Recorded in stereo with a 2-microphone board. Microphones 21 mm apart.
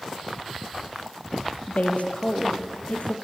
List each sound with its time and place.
1.7 s a woman speaking: 70° left (ahead or behind), 3.5 m